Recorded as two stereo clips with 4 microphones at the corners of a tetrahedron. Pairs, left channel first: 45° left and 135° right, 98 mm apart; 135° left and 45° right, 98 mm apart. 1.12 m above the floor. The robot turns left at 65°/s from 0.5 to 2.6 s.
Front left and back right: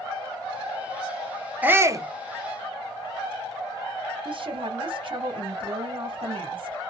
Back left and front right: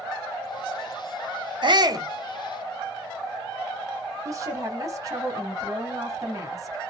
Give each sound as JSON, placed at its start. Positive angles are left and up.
{"t": 1.6, "sound": "a shout", "azimuth_deg": -60, "distance_m": 0.7}
{"t": 4.2, "sound": "a woman speaking", "azimuth_deg": -100, "distance_m": 0.9}